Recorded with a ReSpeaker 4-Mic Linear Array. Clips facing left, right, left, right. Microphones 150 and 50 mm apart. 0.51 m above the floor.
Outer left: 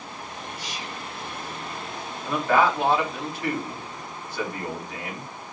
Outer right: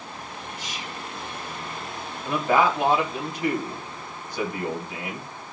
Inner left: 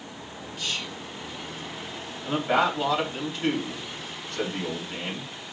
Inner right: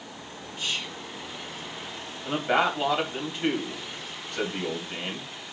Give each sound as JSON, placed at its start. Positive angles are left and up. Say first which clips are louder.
{"t": 0.6, "sound": "whispering", "louder": "even, inner right 1 dB", "side_deg": -25, "distance_m": 1.6}
{"t": 2.2, "sound": "a man speaking", "louder": "even, inner left 1 dB", "side_deg": -15, "distance_m": 2.0}